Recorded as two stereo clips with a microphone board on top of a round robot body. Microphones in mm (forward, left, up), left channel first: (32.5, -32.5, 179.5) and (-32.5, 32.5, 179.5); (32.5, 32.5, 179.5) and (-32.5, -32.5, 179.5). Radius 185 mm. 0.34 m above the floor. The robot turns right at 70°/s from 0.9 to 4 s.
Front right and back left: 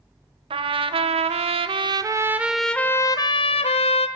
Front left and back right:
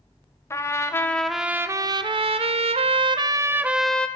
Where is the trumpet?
105° left, 0.5 m; by 4.1 s 35° right, 0.5 m.